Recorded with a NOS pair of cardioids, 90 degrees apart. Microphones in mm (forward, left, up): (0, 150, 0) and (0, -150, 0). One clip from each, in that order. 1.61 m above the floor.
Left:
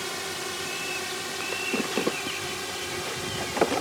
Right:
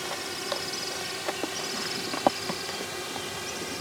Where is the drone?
15° left.